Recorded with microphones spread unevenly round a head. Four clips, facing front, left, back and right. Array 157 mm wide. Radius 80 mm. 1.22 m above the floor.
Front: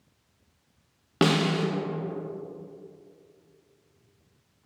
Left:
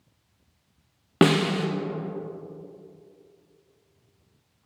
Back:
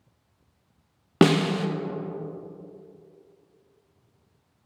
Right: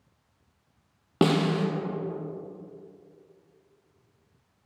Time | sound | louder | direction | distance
1.2 | a snare drum | left 3 dB, back 3 dB | 165° left | 0.6 m